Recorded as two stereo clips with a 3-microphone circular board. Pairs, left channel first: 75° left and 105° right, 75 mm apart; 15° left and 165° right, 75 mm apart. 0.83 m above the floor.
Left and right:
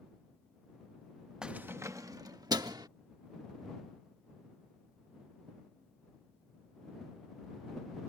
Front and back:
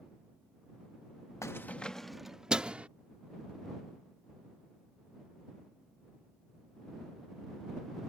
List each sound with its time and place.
1.4 s keys jangling: 25° right; by 2.9 s 95° right